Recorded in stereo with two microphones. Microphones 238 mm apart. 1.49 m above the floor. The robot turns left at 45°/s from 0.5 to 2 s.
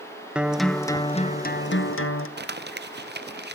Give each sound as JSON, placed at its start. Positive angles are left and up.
{"t": 0.3, "sound": "a guitar", "azimuth_deg": -175, "distance_m": 1.2}
{"t": 2.4, "sound": "crumpling", "side_deg": -45, "distance_m": 0.6}